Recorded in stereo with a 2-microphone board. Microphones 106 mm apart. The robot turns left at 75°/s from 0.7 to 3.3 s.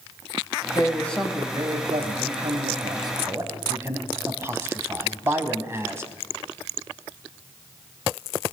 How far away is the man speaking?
About 4 m.